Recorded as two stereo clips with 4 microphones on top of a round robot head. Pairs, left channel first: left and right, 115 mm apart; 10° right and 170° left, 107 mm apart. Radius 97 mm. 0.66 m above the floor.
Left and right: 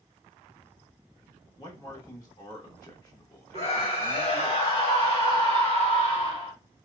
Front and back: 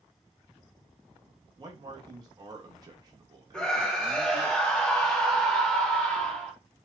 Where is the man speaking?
135° left, 0.9 m.